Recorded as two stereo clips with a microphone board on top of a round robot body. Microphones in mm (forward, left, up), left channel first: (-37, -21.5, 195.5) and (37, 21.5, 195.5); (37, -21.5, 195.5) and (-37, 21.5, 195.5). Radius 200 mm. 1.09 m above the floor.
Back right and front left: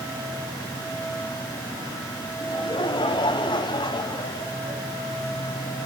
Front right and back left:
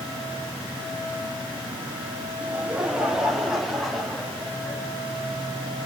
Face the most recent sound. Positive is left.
turn(degrees=-110)